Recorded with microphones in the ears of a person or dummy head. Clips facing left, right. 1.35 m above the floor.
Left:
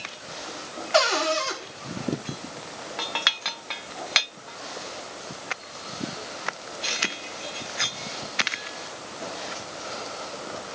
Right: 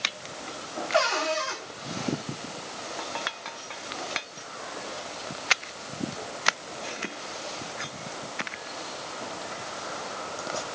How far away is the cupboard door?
About 3.5 m.